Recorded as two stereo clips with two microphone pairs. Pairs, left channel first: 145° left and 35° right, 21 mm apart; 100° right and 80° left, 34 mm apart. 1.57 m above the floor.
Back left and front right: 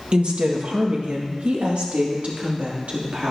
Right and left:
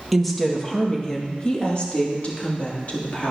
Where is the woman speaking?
10° right, 1.7 m; by 3.3 s 65° right, 3 m.